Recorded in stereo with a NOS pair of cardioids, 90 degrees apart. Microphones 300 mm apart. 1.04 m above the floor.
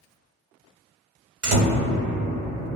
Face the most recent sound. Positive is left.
turn(degrees=-50)